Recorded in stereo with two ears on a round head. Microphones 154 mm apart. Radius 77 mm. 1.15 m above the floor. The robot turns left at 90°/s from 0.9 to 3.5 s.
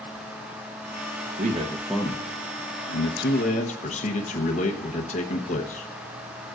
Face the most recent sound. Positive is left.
turn(degrees=40)